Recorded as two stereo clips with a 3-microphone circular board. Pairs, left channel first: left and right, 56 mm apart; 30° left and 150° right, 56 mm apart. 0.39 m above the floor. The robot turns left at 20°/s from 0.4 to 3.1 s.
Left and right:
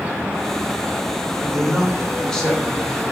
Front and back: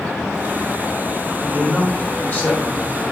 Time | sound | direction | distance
1.4 | a woman speaking | 40° left | 1.2 m